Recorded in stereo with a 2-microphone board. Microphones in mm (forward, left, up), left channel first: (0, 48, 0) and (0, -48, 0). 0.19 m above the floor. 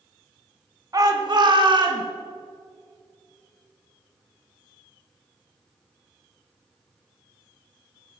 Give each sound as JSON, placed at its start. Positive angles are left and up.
{"t": 0.9, "sound": "a shout", "side_deg": -40, "distance_m": 1.3}